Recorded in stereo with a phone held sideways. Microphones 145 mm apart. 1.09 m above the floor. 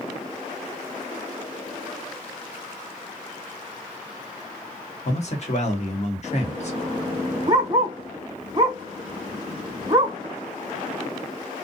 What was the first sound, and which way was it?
A man speaking, 50° left (ahead or behind).